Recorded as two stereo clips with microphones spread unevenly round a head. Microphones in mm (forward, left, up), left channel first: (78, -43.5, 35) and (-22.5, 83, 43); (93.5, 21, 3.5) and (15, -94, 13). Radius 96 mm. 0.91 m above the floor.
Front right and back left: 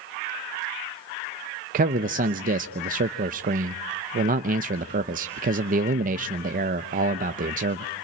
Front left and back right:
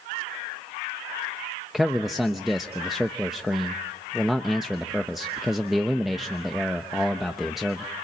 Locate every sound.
1.7 s a man speaking: 145° left, 0.6 m